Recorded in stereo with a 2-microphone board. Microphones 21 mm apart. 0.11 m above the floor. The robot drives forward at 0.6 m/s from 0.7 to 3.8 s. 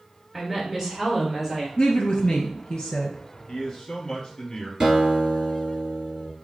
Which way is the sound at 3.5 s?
25° left (ahead or behind).